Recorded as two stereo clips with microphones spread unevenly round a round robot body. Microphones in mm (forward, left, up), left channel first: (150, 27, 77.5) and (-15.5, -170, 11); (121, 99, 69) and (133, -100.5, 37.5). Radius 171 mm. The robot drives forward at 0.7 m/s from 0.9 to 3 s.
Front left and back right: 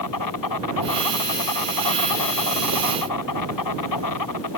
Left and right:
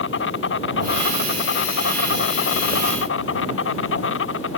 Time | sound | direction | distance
0.0 | an insect | 75° left | ?